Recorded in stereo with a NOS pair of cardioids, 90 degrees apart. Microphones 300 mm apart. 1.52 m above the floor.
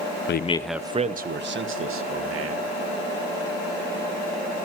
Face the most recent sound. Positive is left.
turn(degrees=-50)